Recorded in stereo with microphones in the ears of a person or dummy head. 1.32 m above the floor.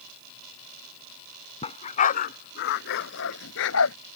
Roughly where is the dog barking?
Left.